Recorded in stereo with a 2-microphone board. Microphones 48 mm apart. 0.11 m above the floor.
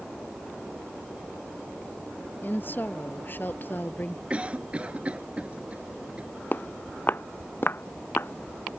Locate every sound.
2.4 s a woman speaking: 45° left (ahead or behind)
4.3 s a cough: 30° right (ahead or behind)
6.5 s footsteps: 45° left (ahead or behind); by 8.7 s 55° left (ahead or behind)